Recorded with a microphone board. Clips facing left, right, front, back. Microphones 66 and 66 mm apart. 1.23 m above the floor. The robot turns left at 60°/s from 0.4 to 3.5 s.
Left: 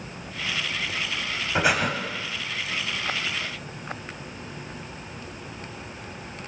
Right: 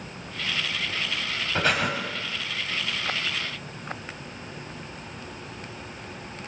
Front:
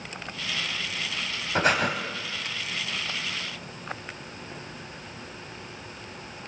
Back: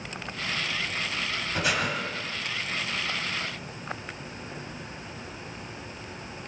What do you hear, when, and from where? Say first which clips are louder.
1.6 s breathing: left 2 dB, front 5 dB; 20° left, 1.4 m; by 1.9 s straight ahead, 1.4 m